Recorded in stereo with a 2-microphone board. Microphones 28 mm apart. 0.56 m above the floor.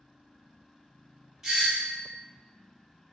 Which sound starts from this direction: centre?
A doorbell, at 1.4 s.